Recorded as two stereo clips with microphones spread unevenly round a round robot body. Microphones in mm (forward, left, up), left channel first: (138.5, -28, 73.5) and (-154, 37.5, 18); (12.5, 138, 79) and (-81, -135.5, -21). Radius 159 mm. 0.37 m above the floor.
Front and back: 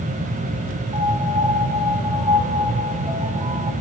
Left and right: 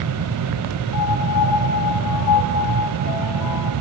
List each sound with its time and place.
0.9 s a piano: 95° left, 3.5 m